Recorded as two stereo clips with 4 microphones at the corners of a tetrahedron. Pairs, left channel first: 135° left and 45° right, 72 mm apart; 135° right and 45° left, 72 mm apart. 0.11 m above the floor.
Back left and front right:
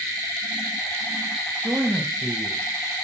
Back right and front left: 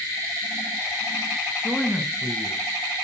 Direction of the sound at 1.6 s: 30° right.